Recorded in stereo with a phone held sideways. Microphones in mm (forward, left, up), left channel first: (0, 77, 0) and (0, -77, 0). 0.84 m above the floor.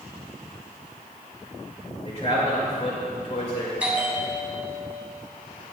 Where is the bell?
10° right (ahead or behind), 3 m.